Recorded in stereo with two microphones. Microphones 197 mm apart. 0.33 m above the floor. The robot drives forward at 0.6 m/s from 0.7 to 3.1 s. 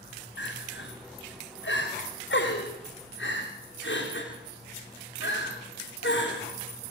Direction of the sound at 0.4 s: 75° left (ahead or behind).